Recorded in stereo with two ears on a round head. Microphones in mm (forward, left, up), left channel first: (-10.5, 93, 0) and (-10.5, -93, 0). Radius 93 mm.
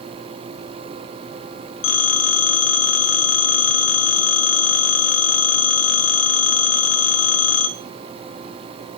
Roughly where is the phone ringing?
Left.